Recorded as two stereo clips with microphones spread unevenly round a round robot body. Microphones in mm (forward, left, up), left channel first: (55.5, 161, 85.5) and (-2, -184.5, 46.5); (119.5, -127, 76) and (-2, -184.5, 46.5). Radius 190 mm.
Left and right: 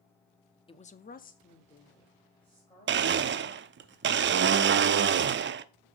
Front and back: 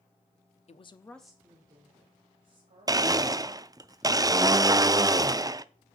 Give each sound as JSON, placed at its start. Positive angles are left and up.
{"t": 0.7, "sound": "a woman speaking", "azimuth_deg": 5, "distance_m": 0.8}
{"t": 2.9, "sound": "a blender", "azimuth_deg": -130, "distance_m": 0.5}